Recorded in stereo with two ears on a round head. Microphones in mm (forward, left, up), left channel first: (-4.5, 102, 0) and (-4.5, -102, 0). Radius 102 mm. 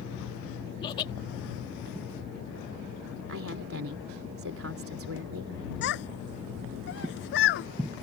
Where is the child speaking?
55° left (ahead or behind).